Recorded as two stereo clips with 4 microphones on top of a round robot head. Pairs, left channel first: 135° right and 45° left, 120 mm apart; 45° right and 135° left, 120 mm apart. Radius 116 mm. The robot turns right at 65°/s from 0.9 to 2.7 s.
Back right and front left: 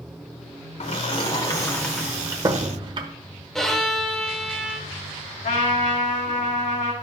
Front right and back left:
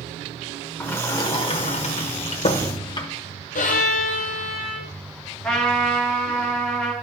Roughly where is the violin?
Ahead right.